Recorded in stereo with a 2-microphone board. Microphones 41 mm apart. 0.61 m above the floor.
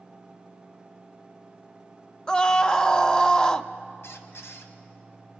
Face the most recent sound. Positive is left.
turn(degrees=85)